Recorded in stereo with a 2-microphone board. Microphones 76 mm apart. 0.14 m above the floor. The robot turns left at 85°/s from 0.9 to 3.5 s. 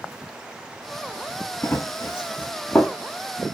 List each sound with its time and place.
1.6 s running footsteps: 35° left (ahead or behind), 0.6 m; by 3.0 s 5° left (ahead or behind), 0.8 m